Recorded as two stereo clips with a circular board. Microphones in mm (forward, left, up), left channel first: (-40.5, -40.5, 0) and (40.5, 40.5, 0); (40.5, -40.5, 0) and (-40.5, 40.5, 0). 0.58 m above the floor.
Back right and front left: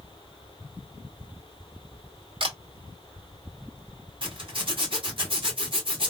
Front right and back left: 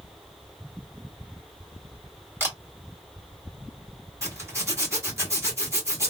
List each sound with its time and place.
2.4 s a camera shutter: 70° left, 1.6 m
4.2 s a zipper: 75° left, 1.8 m